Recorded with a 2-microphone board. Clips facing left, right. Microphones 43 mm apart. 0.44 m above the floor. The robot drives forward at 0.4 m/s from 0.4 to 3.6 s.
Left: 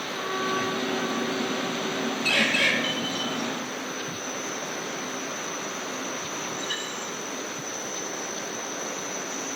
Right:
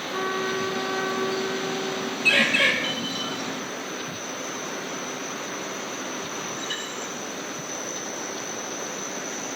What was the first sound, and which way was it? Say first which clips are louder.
A trumpet: right 2 dB; 75° right (ahead or behind).